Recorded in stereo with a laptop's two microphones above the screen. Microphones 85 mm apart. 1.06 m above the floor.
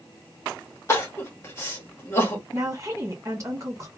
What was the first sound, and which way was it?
Crying, 30° left (ahead or behind).